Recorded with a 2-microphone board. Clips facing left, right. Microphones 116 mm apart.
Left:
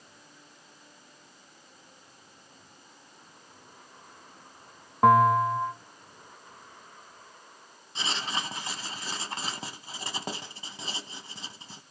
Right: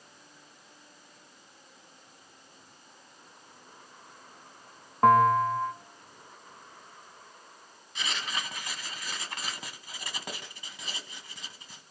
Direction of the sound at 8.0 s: 30° left (ahead or behind).